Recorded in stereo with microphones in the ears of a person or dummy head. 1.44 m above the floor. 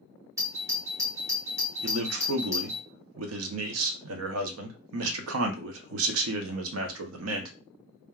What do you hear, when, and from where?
0.4 s a doorbell: 15° right (ahead or behind), 0.6 m
1.8 s a man speaking: 80° right, 0.6 m